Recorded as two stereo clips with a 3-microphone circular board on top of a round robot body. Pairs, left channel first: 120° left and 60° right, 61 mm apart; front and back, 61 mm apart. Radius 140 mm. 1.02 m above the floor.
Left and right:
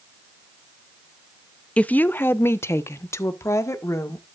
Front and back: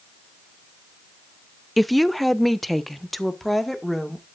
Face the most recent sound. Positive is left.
turn(degrees=85)